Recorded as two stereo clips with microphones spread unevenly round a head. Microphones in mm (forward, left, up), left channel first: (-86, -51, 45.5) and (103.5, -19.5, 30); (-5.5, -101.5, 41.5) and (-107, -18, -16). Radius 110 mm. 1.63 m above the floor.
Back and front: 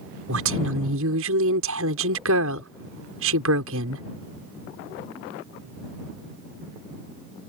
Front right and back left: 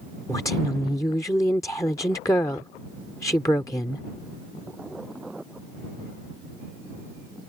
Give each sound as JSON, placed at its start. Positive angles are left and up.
{"t": 0.3, "sound": "a woman speaking", "azimuth_deg": 35}